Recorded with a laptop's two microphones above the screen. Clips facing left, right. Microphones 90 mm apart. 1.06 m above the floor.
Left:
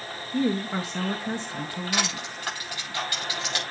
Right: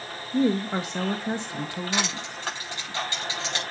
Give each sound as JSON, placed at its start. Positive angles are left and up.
{"t": 0.3, "sound": "a woman speaking", "side_deg": -20, "distance_m": 0.8}
{"t": 1.9, "sound": "crushing", "side_deg": -25, "distance_m": 6.5}